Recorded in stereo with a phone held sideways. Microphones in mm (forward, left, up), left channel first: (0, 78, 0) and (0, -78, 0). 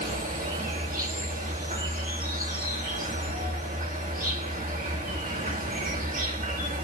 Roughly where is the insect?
Right.